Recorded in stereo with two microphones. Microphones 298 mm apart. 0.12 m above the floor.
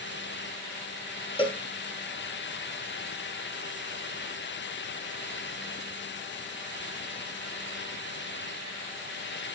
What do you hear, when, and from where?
1.4 s a cowbell: 20° left (ahead or behind), 1.3 m